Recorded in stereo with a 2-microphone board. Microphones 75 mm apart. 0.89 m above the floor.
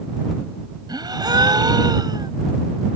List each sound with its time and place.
0.9 s a gasp: 70° right (ahead or behind)